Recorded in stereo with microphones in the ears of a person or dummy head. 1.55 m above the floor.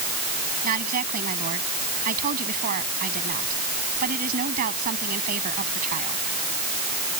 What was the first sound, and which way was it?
A woman speaking, 55° right (ahead or behind).